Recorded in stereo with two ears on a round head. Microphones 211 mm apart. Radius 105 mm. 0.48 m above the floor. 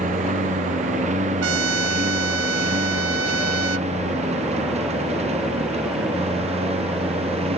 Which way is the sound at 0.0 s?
30° right (ahead or behind).